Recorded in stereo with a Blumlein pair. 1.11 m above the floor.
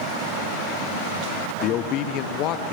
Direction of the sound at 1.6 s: 35° left.